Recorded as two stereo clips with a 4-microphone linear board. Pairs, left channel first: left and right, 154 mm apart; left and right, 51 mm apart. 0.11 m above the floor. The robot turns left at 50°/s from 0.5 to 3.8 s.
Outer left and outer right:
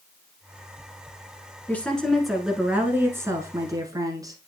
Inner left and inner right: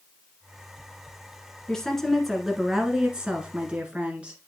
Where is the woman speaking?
10° left (ahead or behind), 1.3 m; by 4.4 s 25° right (ahead or behind), 1.3 m.